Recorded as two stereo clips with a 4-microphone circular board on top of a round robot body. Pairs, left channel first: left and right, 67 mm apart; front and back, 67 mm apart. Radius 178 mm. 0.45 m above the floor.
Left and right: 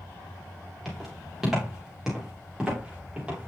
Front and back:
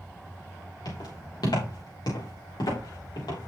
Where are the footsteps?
Straight ahead, 7.5 m; by 3.5 s 15° right, 7.5 m.